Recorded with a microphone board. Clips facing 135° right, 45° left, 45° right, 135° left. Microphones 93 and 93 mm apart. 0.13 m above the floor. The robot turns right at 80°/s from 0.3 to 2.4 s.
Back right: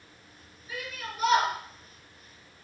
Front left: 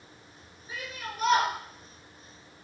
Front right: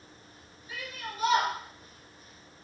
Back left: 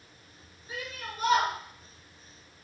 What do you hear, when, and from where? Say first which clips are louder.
0.7 s a shout: even, back left 1 dB; 100° left, 2.5 m; by 1.5 s 165° left, 2.5 m